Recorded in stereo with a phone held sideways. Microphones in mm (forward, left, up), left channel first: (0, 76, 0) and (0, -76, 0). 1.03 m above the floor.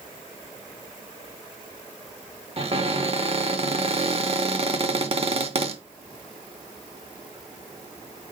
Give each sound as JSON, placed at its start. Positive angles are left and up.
{"t": 2.6, "sound": "a cupboard door", "side_deg": -40, "distance_m": 0.8}